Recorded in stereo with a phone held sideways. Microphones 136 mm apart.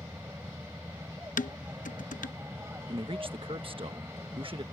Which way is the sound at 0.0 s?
20° right (ahead or behind).